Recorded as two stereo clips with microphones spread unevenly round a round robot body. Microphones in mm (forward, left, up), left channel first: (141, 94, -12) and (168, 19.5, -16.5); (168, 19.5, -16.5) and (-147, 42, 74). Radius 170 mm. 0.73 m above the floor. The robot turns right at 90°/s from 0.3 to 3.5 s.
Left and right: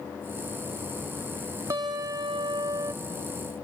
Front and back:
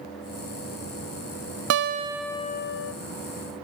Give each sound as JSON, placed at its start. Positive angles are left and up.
{"t": 1.7, "sound": "a guitar", "azimuth_deg": -130, "distance_m": 0.6}